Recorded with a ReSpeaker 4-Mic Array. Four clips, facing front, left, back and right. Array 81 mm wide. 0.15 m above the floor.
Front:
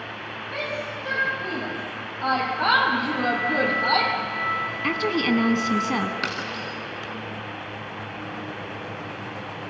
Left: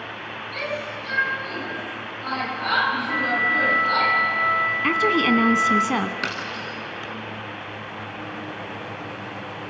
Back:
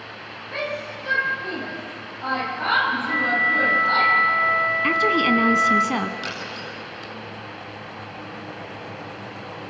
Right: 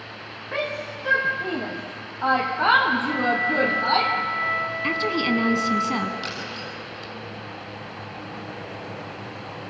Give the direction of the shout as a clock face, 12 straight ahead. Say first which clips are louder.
Right 2 dB, back 2 dB; 3 o'clock.